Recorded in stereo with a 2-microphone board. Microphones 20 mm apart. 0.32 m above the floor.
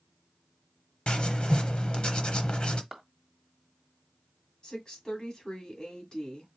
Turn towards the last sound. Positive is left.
turn(degrees=40)  # may be behind; listen again after turning